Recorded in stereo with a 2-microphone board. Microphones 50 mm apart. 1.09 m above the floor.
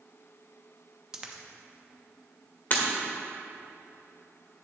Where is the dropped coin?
15° right (ahead or behind), 0.6 m.